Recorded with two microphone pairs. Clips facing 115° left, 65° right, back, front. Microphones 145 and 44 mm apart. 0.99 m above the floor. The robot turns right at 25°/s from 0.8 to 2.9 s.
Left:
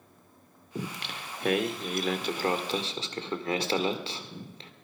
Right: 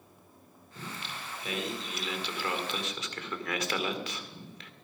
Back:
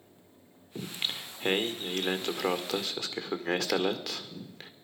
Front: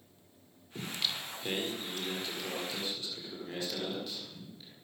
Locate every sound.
0.8 s singing: 120° left, 1.8 m; by 4.7 s 170° left, 1.8 m